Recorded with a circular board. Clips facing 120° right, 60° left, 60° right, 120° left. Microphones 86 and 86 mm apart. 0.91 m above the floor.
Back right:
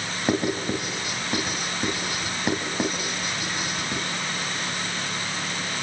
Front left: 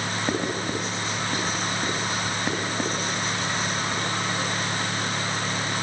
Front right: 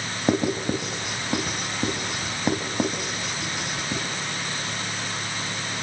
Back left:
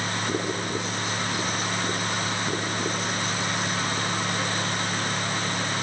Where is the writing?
40° right, 6.5 m.